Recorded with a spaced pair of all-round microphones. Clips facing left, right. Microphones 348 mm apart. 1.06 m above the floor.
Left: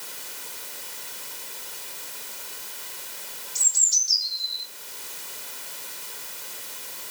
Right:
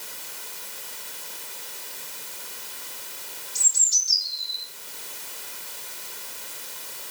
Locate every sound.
3.5 s a bird: 35° right (ahead or behind), 6.5 m